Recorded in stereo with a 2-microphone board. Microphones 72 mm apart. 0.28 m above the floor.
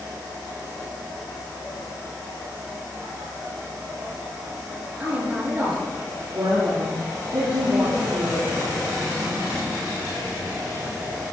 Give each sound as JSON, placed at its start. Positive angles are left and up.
{"t": 5.0, "sound": "a woman speaking", "side_deg": -25, "distance_m": 4.0}
{"t": 6.3, "sound": "a woman speaking", "side_deg": -70, "distance_m": 4.5}